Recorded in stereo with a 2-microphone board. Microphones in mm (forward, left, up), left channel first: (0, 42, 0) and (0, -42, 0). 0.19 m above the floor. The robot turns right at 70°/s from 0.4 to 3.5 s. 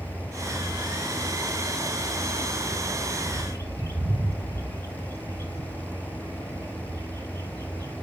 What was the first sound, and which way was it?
A bird, 30° right (ahead or behind).